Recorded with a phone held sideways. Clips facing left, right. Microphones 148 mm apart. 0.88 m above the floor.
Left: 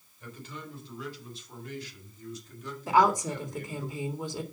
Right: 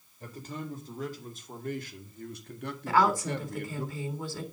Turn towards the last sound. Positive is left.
turn(degrees=20)  # may be behind; listen again after turning